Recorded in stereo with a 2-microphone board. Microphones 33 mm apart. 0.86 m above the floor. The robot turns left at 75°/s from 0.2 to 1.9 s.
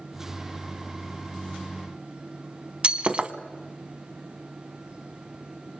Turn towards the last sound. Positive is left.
turn(degrees=-30)  # may be behind; listen again after turning